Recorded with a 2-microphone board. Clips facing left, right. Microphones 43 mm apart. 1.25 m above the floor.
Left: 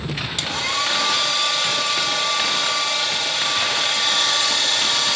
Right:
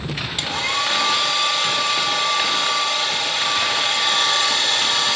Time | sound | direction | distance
0.4 | a hair dryer | 15° right (ahead or behind) | 1.1 m